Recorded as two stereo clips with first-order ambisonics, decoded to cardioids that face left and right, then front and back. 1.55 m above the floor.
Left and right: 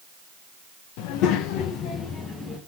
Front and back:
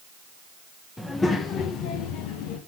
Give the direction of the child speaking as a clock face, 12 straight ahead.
9 o'clock.